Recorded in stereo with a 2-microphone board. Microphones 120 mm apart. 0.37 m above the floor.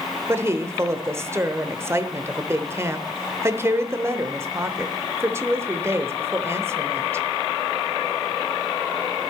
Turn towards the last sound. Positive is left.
turn(degrees=-25)  # may be behind; listen again after turning